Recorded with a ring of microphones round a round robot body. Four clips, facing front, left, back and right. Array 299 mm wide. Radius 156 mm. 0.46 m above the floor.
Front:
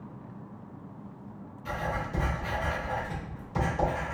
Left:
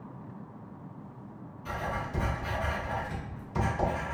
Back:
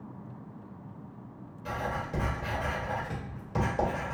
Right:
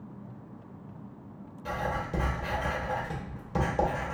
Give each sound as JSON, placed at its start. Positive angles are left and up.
{"t": 1.6, "sound": "writing", "azimuth_deg": -115, "distance_m": 1.7}